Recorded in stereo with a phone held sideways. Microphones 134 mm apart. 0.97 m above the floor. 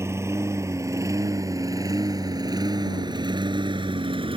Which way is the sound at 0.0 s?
20° right (ahead or behind).